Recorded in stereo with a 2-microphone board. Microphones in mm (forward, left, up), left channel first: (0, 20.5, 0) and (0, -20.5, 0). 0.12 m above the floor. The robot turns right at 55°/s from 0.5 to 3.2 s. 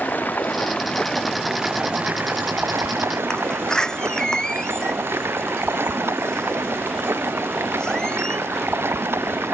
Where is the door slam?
20° left (ahead or behind).